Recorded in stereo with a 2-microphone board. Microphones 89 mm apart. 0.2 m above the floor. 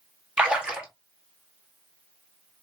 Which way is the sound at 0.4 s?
10° right (ahead or behind).